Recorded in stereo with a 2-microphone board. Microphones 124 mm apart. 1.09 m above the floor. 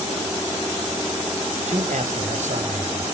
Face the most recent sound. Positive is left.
turn(degrees=-70)  # may be behind; listen again after turning